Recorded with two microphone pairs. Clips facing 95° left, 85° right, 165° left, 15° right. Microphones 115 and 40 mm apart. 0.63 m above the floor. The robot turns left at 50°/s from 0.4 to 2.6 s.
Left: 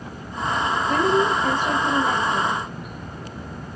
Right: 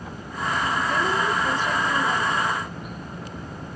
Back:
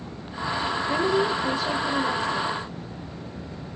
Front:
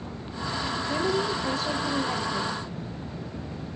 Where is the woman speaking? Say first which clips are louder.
Left 7 dB, back 4 dB; 125° left, 1.1 m; by 2.6 s 40° left, 1.1 m.